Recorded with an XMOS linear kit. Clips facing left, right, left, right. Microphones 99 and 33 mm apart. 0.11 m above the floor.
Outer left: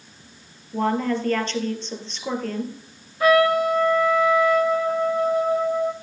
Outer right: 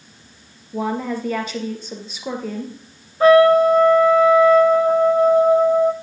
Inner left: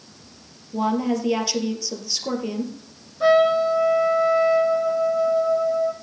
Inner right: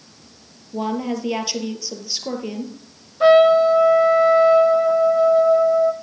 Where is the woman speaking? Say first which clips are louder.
Outer left 1 dB, inner left 2 dB; 10° right (ahead or behind), 2.5 m.